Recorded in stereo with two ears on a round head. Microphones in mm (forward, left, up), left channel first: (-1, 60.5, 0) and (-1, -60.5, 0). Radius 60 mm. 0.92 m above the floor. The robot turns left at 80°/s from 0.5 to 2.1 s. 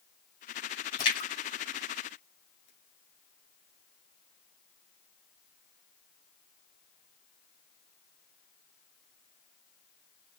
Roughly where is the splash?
Left.